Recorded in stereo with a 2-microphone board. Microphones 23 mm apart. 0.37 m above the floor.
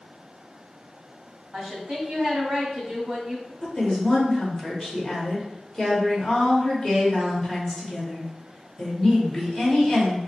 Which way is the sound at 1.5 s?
25° right (ahead or behind).